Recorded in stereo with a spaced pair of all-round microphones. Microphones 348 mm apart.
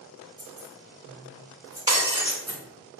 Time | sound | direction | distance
0.4 | keys jangling | 45° right (ahead or behind) | 1.5 m
1.9 | breaking glass | 10° right (ahead or behind) | 0.7 m